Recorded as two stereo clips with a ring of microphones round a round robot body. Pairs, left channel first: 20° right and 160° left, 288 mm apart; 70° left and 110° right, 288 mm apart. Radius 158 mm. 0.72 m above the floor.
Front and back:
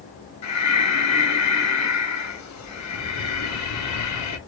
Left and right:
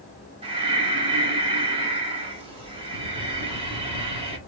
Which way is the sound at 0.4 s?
40° right.